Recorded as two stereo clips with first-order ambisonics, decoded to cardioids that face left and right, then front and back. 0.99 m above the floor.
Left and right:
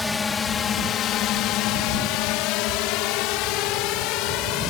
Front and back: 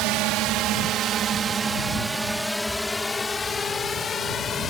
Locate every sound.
0.0 s a drone: 170° left; by 4.7 s 65° left